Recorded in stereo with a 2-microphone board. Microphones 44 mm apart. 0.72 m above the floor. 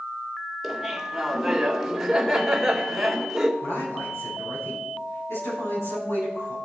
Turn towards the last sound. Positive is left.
turn(degrees=80)